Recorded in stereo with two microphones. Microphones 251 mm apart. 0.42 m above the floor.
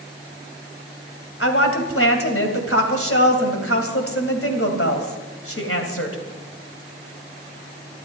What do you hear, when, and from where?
1.4 s a woman speaking: 60° left (ahead or behind), 2.5 m